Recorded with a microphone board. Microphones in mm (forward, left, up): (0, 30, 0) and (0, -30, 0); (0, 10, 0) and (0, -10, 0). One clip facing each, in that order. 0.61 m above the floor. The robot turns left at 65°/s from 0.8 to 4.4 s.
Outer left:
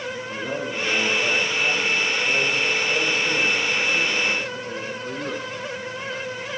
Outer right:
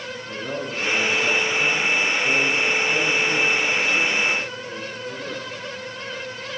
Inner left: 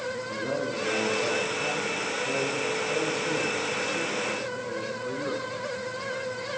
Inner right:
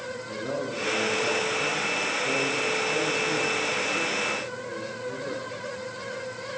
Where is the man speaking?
10° right, 6.5 m; by 5.5 s 115° left, 6.5 m.